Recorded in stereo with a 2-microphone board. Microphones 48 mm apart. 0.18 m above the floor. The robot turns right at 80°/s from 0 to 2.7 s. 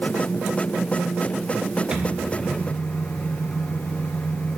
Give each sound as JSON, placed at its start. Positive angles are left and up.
{"t": 1.9, "sound": "a microwave", "azimuth_deg": -25, "distance_m": 3.0}